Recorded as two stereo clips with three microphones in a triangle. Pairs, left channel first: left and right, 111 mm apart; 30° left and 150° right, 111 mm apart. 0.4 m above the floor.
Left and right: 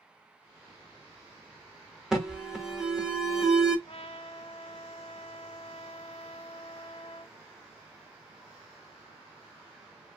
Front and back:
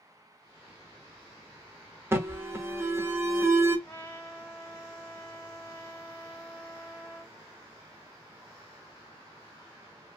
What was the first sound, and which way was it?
An alarm, 170° right.